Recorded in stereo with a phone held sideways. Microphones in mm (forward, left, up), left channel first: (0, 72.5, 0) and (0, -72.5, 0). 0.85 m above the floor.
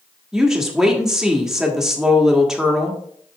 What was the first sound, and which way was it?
A woman speaking, 5° right (ahead or behind).